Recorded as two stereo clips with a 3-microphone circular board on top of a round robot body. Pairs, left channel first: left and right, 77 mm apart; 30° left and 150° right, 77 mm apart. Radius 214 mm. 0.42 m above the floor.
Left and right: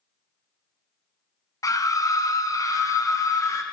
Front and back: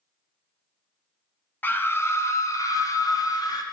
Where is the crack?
I don't hear a crack.